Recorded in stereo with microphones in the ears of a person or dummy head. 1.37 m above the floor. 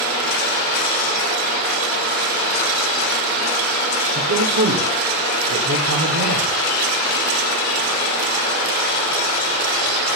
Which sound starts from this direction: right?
A man speaking, at 4.2 s.